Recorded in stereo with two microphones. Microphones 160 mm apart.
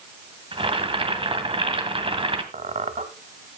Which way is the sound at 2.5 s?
50° right (ahead or behind).